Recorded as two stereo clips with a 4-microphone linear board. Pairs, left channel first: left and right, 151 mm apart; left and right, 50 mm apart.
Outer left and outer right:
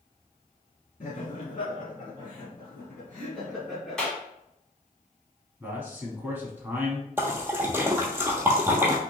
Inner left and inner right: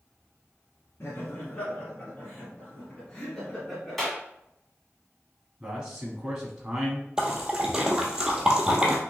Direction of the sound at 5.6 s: 15° right (ahead or behind).